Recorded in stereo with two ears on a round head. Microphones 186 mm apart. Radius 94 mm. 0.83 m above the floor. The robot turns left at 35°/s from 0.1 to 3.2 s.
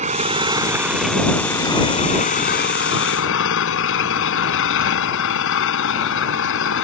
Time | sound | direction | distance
0.0 | an engine running | 145° right | ?